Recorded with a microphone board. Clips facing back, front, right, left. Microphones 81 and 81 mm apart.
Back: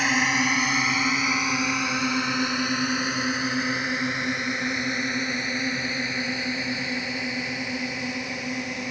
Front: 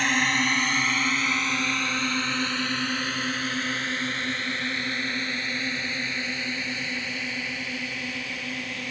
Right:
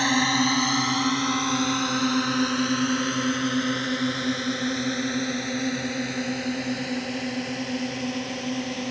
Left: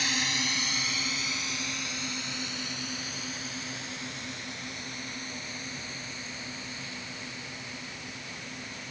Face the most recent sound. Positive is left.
turn(degrees=-110)